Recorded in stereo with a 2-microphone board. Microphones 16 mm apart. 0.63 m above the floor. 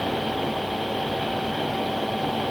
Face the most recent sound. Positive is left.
No sound to turn to.